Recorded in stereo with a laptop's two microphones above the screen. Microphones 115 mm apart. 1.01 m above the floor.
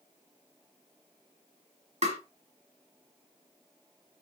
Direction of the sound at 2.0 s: 75° right (ahead or behind).